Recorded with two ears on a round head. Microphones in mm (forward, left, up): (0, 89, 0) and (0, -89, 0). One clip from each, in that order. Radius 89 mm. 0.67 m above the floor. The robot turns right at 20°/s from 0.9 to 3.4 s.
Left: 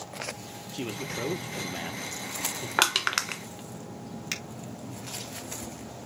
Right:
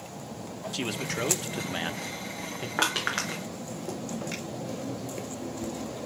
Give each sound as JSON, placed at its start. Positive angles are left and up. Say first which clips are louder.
{"t": 0.7, "sound": "a man speaking", "louder": "right 3 dB", "azimuth_deg": -135, "distance_m": 1.1}
{"t": 2.8, "sound": "crushing", "louder": "left 3 dB", "side_deg": 75, "distance_m": 1.6}
{"t": 4.3, "sound": "a finger snap", "louder": "left 3 dB", "side_deg": 55, "distance_m": 4.0}